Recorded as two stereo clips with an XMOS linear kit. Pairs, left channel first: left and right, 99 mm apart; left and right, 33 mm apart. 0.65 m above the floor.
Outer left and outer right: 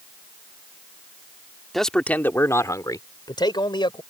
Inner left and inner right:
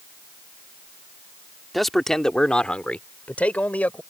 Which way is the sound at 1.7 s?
Centre (ahead or behind).